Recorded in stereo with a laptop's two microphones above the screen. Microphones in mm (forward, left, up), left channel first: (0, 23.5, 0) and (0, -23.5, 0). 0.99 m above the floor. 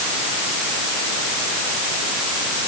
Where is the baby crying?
No baby crying in this recording.